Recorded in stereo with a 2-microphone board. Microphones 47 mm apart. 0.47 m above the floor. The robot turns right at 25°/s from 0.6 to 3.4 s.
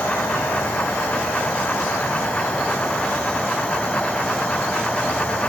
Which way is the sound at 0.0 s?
85° left.